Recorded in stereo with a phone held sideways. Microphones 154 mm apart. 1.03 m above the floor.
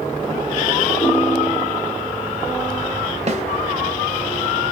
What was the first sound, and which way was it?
A ringtone, 40° left (ahead or behind).